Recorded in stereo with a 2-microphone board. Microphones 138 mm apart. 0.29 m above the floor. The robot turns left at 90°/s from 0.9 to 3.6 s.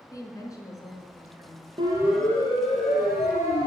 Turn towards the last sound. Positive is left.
turn(degrees=35)  # may be behind; listen again after turning